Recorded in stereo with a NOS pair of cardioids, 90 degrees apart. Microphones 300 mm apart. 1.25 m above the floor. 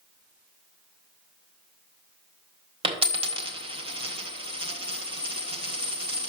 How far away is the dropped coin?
About 1.7 m.